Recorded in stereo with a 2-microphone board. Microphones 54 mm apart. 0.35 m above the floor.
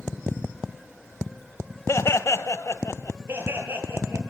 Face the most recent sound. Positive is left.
turn(degrees=-45)  # may be behind; listen again after turning